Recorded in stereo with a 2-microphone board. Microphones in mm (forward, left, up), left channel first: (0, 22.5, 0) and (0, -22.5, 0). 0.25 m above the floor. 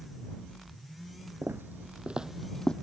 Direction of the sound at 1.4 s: 60° right (ahead or behind).